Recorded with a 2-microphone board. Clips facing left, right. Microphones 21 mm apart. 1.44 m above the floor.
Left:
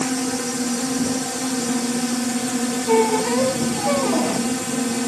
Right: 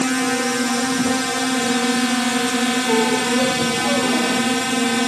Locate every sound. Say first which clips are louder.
0.0 s a drone: right 4 dB; 60° right (ahead or behind)
2.9 s a squeak: left 3 dB; 15° left (ahead or behind)